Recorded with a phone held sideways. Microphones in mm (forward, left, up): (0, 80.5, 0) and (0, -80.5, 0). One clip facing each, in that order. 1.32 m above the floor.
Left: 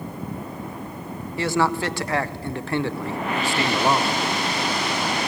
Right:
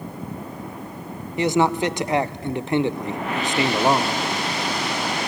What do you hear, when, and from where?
1.4 s a man speaking: 20° right (ahead or behind), 0.6 m